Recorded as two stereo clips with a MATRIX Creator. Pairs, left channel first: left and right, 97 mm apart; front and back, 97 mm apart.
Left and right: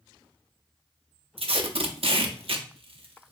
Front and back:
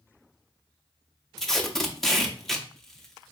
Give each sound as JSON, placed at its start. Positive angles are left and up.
{"t": 1.4, "sound": "tape being pulled", "azimuth_deg": -85, "distance_m": 0.6}